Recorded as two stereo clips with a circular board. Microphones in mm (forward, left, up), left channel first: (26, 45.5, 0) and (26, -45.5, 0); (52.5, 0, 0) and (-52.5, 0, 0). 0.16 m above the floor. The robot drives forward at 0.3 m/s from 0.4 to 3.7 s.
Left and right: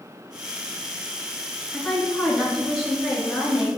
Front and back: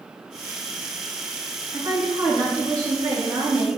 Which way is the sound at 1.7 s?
175° left.